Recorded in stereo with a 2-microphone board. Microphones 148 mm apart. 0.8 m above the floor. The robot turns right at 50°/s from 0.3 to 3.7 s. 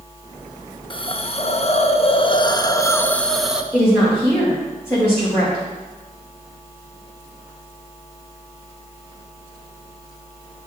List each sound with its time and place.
0.9 s a hiss: 55° left, 0.5 m; by 3.6 s 170° right, 0.5 m
3.7 s a woman speaking: 5° right (ahead or behind), 3.5 m